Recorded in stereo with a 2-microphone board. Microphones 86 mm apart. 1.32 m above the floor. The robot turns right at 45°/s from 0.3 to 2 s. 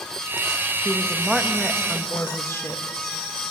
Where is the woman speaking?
25° right, 1.4 m; by 2.8 s 30° left, 1.4 m.